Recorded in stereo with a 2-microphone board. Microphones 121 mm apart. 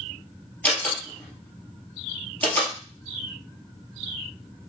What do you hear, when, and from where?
0.6 s a door slam: 15° left (ahead or behind), 1.9 m